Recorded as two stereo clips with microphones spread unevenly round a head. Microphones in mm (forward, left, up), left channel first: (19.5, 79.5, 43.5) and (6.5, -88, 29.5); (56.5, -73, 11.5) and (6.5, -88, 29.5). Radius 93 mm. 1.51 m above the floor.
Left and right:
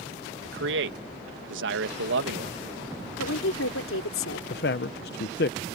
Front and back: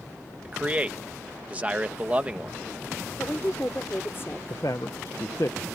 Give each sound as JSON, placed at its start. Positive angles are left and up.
{"t": 0.5, "sound": "a man speaking", "azimuth_deg": -100}
{"t": 3.2, "sound": "a woman speaking", "azimuth_deg": 95}
{"t": 4.5, "sound": "a man speaking", "azimuth_deg": 85}